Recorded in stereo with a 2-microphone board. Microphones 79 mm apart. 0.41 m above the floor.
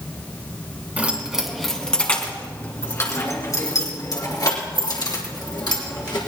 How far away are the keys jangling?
About 2.5 m.